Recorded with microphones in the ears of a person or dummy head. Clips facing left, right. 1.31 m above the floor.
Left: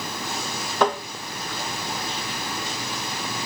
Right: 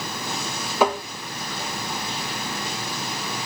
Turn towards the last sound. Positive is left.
turn(degrees=-10)  # may be behind; listen again after turning